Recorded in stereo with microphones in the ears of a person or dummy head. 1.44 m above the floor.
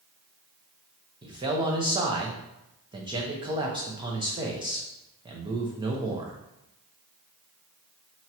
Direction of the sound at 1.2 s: 20° right (ahead or behind).